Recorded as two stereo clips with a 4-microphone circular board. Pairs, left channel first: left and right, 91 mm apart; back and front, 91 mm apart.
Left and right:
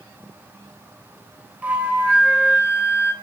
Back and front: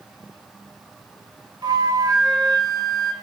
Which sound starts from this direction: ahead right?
A flute, at 1.6 s.